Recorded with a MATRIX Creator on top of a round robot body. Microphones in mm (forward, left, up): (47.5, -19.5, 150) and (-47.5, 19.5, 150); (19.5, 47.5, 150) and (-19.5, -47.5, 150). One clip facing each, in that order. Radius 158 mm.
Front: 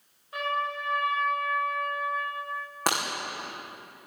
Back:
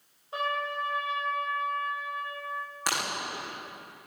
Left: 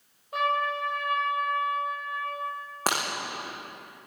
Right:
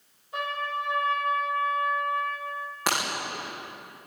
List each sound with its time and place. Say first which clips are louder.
0.3 s a trumpet: front 1 dB, left 4 dB; 95° left, 7.5 m
2.9 s breaking glass: front 5 dB, even; 15° left, 9.5 m